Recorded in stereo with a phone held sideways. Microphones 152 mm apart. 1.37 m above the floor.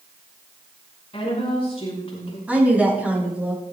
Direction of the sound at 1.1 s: 40° left (ahead or behind).